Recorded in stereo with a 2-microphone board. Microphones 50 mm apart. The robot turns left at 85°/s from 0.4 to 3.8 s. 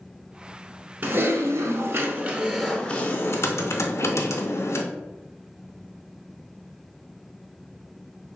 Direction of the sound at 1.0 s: 45° right.